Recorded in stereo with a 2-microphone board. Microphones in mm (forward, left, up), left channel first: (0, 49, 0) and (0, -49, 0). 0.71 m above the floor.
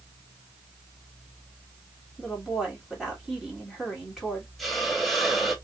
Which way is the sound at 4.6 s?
Centre (ahead or behind).